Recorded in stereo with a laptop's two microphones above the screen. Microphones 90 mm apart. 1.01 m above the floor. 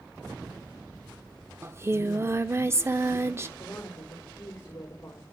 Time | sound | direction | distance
1.6 | singing | 30° right (ahead or behind) | 0.6 m
3.6 | a woman speaking | 35° left (ahead or behind) | 2.5 m